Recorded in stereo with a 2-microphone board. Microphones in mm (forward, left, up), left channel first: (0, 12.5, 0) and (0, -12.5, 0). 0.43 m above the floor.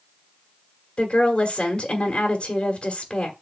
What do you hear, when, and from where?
1.0 s a woman speaking: 45° left (ahead or behind), 1.8 m